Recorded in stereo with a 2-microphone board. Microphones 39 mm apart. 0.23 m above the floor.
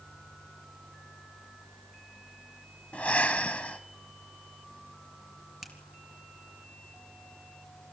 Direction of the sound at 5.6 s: 5° right (ahead or behind).